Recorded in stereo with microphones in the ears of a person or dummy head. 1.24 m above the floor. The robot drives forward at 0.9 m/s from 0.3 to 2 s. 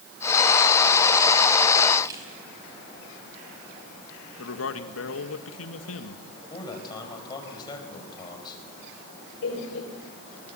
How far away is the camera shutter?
About 5.5 m.